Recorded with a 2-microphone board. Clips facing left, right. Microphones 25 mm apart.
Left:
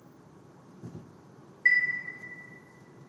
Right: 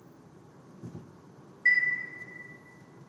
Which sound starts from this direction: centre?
A chime, at 1.6 s.